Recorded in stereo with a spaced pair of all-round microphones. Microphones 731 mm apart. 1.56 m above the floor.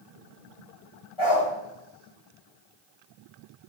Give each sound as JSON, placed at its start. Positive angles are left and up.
{"t": 1.2, "sound": "a dog barking", "side_deg": 40, "distance_m": 3.0}